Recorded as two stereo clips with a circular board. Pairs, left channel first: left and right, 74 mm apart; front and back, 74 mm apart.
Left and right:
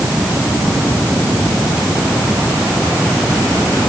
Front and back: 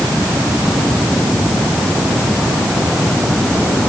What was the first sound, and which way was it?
Only background noise.